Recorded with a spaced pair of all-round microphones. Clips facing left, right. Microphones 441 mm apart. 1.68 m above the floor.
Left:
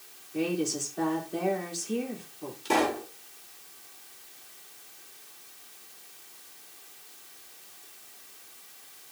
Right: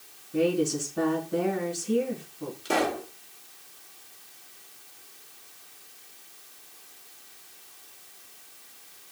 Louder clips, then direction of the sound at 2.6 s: Left 1 dB; 10° left (ahead or behind).